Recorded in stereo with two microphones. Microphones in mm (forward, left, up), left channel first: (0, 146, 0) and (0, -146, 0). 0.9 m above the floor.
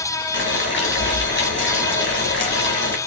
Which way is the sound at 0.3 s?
35° left (ahead or behind).